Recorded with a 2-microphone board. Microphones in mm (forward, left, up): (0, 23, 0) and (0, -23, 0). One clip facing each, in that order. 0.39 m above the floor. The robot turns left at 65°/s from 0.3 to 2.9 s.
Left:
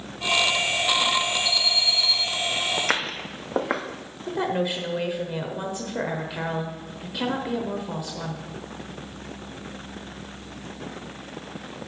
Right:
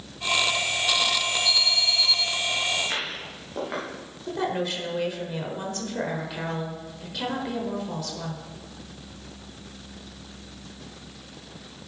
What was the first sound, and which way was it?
An alarm, 115° right.